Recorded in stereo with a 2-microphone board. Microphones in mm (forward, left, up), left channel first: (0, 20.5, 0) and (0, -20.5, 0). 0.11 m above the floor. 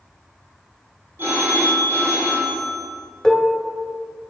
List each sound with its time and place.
1.2 s a phone ringing: 70° right (ahead or behind), 2.5 m
3.2 s dishes clattering: 10° left (ahead or behind), 0.9 m